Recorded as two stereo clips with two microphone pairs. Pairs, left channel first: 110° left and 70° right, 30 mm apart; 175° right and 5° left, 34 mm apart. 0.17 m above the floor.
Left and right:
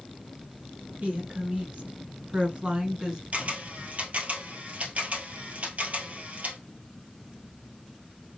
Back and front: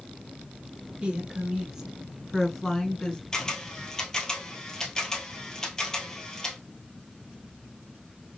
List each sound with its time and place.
1.0 s a woman speaking: 50° right, 2.5 m; by 3.2 s 120° right, 1.8 m
3.3 s a camera shutter: 100° right, 1.6 m